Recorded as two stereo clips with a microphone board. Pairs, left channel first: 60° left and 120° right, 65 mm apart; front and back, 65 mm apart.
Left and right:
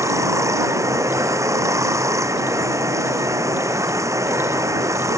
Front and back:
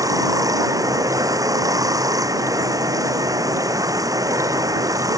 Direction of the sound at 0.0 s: 155° right.